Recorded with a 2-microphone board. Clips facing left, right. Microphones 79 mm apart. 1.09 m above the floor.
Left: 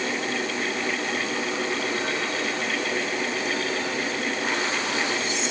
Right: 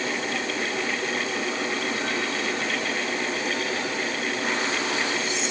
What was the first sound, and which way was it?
Only background noise.